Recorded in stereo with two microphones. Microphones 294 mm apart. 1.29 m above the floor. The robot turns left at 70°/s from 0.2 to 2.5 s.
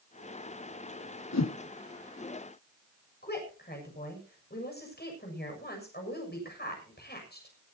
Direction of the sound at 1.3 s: 65° left (ahead or behind).